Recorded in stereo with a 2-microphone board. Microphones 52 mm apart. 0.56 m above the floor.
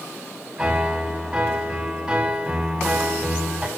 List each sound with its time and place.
0.6 s a piano: 15° right (ahead or behind), 0.7 m